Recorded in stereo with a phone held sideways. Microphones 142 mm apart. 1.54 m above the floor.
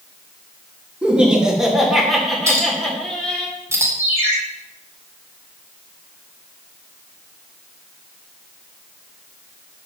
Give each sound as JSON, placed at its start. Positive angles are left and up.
{"t": 1.0, "sound": "laughter", "side_deg": -5, "distance_m": 3.5}
{"t": 2.5, "sound": "a clink", "side_deg": -20, "distance_m": 2.5}
{"t": 4.0, "sound": "a ringtone", "side_deg": -15, "distance_m": 6.5}